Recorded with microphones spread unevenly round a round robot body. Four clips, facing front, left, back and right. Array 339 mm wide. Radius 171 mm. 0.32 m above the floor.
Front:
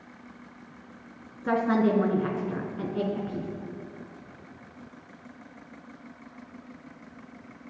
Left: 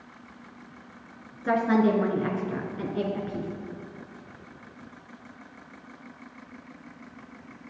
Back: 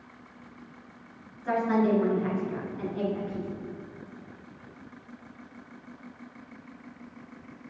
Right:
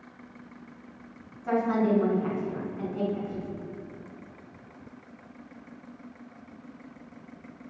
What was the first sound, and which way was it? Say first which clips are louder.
A woman speaking: left 3 dB, front 1 dB; 35° left.